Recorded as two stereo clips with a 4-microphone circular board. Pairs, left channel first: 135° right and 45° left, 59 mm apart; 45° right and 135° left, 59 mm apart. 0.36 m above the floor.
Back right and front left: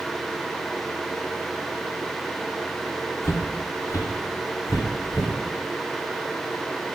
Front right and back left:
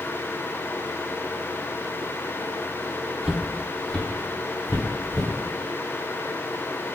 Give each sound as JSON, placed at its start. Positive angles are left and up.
{"t": 3.2, "sound": "footsteps", "azimuth_deg": -150, "distance_m": 0.5}